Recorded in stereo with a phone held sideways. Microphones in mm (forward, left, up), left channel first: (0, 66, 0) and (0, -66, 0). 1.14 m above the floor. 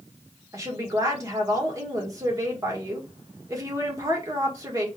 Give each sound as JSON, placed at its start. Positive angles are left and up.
{"t": 0.5, "sound": "a woman speaking", "side_deg": -25, "distance_m": 1.4}